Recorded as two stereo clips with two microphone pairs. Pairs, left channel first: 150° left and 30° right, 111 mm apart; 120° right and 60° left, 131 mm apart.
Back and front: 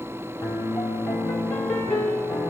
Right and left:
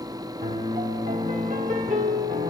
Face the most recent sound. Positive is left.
turn(degrees=70)